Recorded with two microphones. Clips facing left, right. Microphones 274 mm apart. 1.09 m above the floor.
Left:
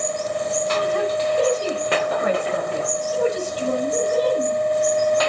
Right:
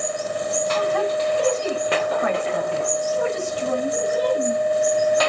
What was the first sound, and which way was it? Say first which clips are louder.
A woman speaking: even; 45° left (ahead or behind).